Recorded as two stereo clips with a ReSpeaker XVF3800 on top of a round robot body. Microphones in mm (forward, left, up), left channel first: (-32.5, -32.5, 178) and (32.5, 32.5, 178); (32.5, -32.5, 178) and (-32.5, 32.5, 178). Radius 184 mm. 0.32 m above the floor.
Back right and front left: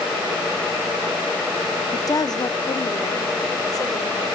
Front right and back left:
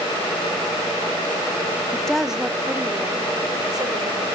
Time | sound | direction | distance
1.9 | a woman speaking | 115° right | 1.0 m